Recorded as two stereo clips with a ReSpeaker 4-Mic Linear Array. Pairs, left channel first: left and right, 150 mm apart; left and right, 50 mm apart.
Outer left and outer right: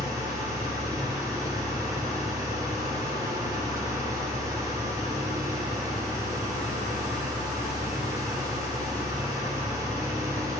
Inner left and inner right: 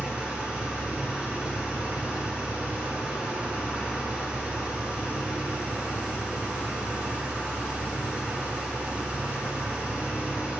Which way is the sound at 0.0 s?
25° right (ahead or behind).